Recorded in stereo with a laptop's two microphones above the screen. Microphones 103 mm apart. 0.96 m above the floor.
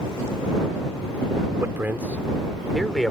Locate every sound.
1.6 s a man speaking: 25° right (ahead or behind); by 3.1 s 5° left (ahead or behind)